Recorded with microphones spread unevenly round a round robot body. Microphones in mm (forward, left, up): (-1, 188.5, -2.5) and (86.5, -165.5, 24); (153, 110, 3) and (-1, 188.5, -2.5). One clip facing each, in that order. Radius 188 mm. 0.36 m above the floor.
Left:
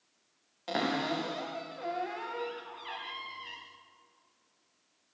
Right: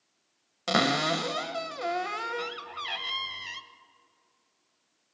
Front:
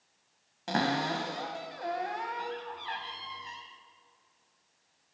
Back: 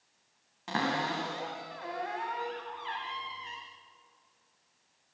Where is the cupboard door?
95° right, 1.2 m.